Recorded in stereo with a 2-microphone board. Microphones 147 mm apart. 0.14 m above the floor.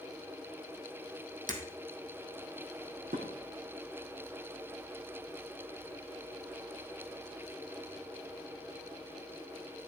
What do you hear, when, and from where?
1.5 s breaking glass: 70° right (ahead or behind), 2.0 m
3.1 s dishes clattering: 75° right (ahead or behind), 4 m